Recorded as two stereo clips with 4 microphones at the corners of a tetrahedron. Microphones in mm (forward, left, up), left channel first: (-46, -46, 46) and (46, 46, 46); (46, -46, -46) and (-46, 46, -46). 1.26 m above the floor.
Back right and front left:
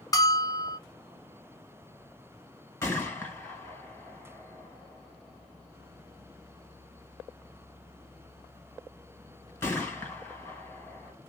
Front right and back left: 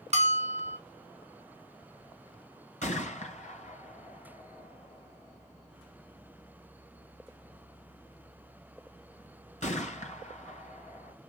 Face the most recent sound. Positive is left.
turn(degrees=-70)